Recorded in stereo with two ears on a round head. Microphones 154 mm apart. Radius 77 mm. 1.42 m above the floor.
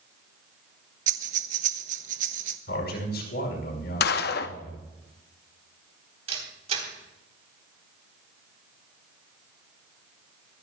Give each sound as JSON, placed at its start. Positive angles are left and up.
{"t": 1.1, "sound": "breathing", "side_deg": -45, "distance_m": 0.9}
{"t": 2.7, "sound": "a man speaking", "side_deg": 70, "distance_m": 5.0}
{"t": 4.0, "sound": "a gunshot", "side_deg": 60, "distance_m": 0.6}
{"t": 6.3, "sound": "a camera shutter", "side_deg": -40, "distance_m": 4.0}